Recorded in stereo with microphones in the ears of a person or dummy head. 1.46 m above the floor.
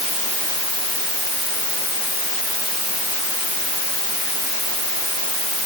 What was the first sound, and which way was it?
Only background noise.